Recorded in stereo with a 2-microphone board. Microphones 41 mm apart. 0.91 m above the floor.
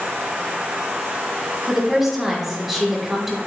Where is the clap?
I don't hear a clap.